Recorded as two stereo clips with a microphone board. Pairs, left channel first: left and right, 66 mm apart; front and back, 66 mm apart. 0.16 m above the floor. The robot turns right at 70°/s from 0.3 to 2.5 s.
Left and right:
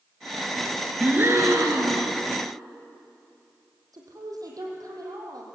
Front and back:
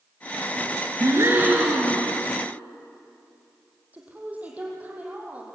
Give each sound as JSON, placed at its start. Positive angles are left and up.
{"t": 1.0, "sound": "a gasp", "azimuth_deg": -150, "distance_m": 3.0}
{"t": 3.9, "sound": "a woman speaking", "azimuth_deg": -110, "distance_m": 4.5}